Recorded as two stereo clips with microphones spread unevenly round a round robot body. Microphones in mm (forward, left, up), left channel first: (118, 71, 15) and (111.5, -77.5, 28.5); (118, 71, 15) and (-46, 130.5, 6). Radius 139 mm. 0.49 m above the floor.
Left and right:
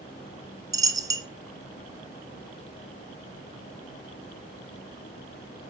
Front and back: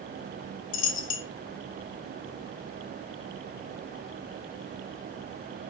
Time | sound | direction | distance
0.7 | a dropped coin | 20° right | 0.6 m